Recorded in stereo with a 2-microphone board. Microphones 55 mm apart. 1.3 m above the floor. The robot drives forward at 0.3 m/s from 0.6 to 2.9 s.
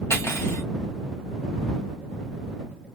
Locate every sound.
0.1 s cutlery clinking: 55° left (ahead or behind), 1.1 m